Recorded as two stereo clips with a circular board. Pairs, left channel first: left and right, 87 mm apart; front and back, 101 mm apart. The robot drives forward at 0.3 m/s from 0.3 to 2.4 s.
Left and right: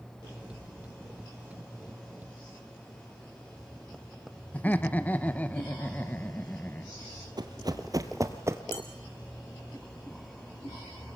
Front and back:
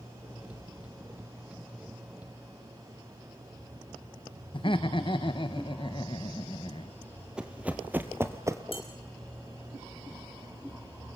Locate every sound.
4.5 s laughter: 20° left, 0.9 m
7.4 s running footsteps: 100° right, 1.7 m; by 8.6 s 135° right, 1.5 m
8.7 s dishes clattering: 30° left, 5 m